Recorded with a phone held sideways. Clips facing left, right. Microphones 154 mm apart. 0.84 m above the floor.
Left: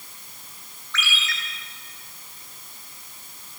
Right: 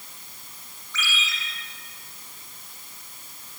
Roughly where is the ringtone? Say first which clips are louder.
Left 1 dB; left.